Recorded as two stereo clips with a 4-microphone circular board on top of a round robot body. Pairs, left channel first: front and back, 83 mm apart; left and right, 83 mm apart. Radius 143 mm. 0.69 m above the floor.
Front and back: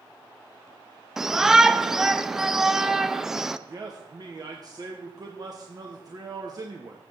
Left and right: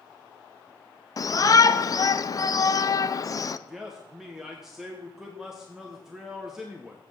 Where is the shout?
100° left, 0.7 m.